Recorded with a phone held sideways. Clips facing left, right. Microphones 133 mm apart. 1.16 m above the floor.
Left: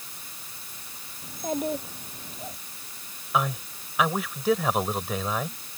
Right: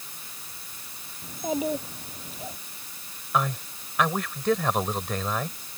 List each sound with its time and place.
1.2 s a child speaking: 5° right (ahead or behind)
3.3 s a man speaking: 5° left (ahead or behind)